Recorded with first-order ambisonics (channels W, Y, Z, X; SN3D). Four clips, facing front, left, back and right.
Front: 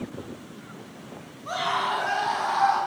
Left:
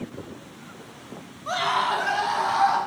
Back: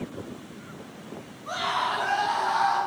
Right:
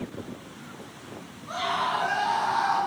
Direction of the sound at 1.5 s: 80° left.